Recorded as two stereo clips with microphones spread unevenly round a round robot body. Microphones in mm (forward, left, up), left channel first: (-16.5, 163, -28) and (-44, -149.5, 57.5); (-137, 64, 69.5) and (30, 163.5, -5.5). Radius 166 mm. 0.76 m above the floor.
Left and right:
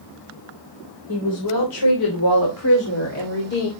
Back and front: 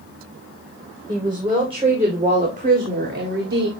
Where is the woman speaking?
95° left, 3.5 m; by 3.7 s 30° left, 2.5 m.